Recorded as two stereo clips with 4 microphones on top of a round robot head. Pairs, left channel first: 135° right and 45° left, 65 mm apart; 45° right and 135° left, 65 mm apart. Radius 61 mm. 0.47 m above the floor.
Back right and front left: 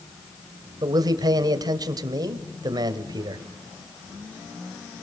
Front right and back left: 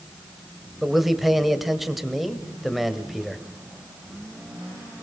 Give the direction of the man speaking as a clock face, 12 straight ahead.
10 o'clock.